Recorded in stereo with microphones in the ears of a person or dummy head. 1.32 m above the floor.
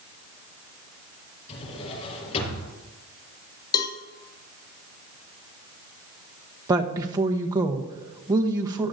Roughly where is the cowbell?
Left.